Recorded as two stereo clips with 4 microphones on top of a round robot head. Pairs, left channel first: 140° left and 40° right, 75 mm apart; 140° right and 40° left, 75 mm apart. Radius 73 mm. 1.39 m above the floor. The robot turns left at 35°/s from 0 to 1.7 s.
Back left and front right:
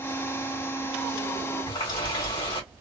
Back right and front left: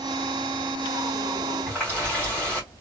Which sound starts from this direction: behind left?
A running tap, at 1.7 s.